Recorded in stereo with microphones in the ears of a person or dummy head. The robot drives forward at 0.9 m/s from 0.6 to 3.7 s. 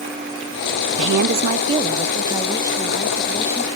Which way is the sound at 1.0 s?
70° right (ahead or behind).